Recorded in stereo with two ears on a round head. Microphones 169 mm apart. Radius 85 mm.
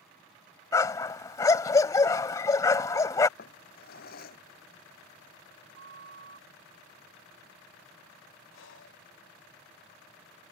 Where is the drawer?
50° left (ahead or behind).